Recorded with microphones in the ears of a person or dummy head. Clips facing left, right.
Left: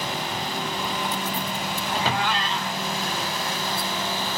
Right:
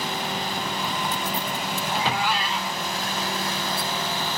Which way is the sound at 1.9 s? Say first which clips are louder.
Even; 10° right (ahead or behind).